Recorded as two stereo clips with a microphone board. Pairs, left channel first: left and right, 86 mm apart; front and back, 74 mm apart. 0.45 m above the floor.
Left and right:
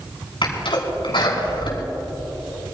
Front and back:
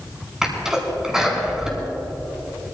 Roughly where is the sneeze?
Left.